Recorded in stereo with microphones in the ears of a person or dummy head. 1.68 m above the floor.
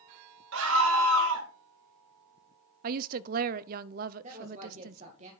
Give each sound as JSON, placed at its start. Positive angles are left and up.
{"t": 0.5, "sound": "a scream", "side_deg": -70, "distance_m": 2.5}
{"t": 2.8, "sound": "a woman speaking", "side_deg": -45, "distance_m": 0.6}
{"t": 4.2, "sound": "a woman speaking", "side_deg": -35, "distance_m": 2.0}